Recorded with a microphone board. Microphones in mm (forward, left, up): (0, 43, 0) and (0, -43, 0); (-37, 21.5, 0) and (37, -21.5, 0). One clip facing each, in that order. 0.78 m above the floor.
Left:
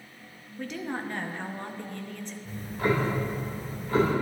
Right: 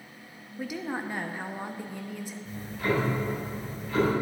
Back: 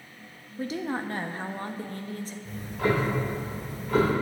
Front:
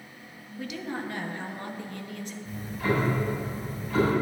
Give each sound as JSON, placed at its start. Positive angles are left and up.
{"t": 0.6, "sound": "a woman speaking", "azimuth_deg": -170, "distance_m": 0.6}
{"t": 2.5, "sound": "ticking", "azimuth_deg": 140, "distance_m": 3.0}